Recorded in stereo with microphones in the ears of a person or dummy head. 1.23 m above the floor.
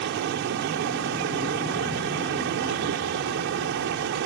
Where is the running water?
70° right (ahead or behind).